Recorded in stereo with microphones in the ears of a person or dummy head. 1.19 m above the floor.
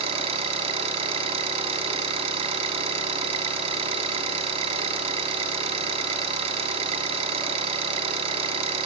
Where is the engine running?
30° right (ahead or behind), 6.5 m.